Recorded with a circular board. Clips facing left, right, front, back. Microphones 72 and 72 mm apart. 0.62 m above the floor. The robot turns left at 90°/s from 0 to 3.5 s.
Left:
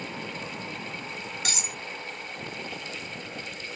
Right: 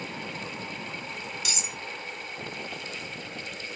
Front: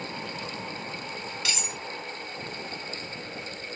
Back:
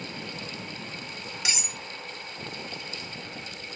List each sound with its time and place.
1.4 s cutlery clinking: 115° left, 0.7 m; by 1.8 s 85° left, 0.7 m